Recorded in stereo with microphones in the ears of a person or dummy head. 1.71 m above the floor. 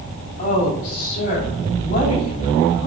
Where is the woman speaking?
40° left (ahead or behind), 5 m.